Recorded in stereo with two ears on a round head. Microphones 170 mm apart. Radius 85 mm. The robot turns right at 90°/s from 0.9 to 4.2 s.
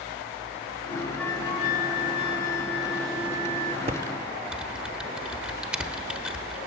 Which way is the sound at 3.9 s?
35° right (ahead or behind).